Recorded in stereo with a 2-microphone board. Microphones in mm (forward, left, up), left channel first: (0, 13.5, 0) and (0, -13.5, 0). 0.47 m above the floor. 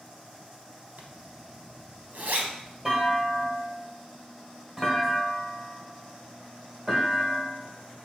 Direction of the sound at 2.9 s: 30° right (ahead or behind).